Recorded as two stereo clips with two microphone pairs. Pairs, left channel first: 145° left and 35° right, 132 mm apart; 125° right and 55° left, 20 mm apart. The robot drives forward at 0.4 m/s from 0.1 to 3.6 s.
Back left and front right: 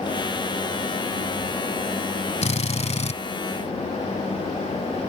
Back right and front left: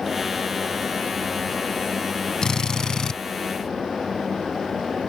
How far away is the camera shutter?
I don't hear a camera shutter.